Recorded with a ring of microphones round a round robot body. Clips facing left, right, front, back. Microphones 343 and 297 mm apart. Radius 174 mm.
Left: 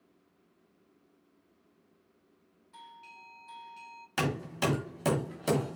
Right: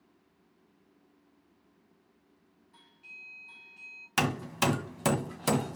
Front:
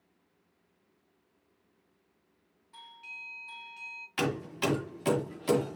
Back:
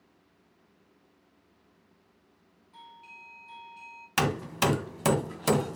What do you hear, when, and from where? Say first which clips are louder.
2.7 s a doorbell: left 4 dB, back 2 dB; 35° left, 2.5 m
4.2 s hammering: right 1 dB, back 2 dB; 155° right, 1.9 m